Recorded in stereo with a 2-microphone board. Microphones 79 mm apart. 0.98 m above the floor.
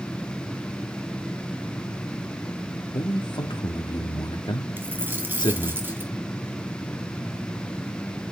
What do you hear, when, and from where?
2.9 s a man speaking: 65° left (ahead or behind), 2.5 m
4.8 s a dropped coin: 25° right (ahead or behind), 2 m